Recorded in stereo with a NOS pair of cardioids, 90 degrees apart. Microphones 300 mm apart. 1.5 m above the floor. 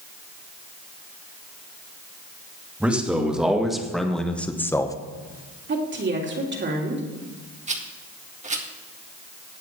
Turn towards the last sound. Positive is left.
turn(degrees=-25)